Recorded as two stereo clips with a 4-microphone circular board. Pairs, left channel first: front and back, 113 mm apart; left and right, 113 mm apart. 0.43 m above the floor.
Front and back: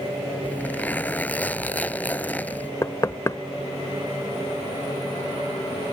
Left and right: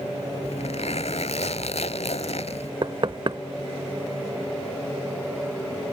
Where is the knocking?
55° right.